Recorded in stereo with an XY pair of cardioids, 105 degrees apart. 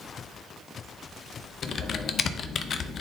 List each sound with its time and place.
1.6 s typing on a keyboard: 55° left, 0.6 m